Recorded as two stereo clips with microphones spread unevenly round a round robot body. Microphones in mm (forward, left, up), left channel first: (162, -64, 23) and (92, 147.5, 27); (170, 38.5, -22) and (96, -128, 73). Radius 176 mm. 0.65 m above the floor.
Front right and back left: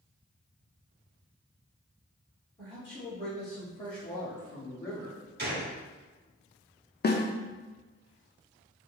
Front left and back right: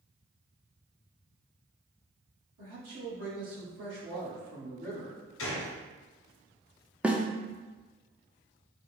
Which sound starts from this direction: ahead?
A snare drum, at 7.0 s.